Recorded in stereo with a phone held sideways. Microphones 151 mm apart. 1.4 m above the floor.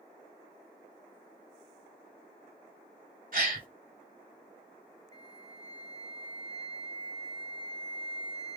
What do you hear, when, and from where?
3.3 s a gasp: 60° right (ahead or behind), 2 m
5.1 s a flute: 25° left (ahead or behind), 0.5 m